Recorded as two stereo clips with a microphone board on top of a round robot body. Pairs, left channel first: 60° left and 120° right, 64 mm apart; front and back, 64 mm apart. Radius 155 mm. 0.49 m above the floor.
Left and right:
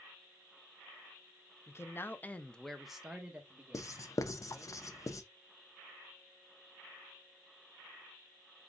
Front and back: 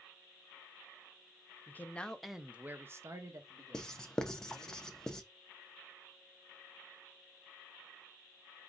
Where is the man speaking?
40° left, 0.8 m; by 4.7 s straight behind, 1.7 m.